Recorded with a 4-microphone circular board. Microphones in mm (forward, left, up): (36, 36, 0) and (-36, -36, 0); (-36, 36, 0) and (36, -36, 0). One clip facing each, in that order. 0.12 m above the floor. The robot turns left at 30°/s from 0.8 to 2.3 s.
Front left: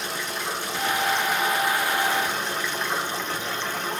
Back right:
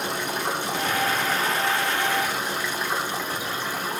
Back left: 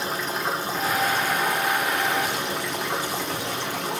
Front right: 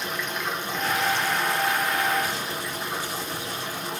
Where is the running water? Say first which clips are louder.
Back right 3 dB, back left 3 dB; 170° right, 1.7 m; by 4.0 s 145° left, 1.7 m.